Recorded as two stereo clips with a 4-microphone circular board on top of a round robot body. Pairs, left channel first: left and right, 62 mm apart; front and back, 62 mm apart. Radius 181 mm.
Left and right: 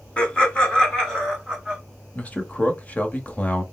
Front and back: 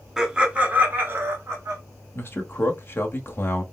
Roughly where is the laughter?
Left.